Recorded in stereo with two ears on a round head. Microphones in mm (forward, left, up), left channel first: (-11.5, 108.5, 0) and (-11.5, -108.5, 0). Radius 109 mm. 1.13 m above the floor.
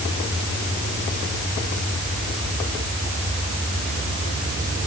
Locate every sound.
Only background noise.